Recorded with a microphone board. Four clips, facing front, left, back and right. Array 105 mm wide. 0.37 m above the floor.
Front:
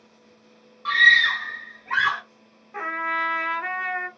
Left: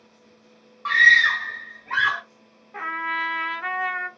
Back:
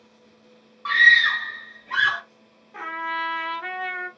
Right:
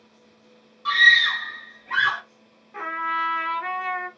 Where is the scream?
110° left, 1.0 m; by 2.2 s 5° left, 1.0 m.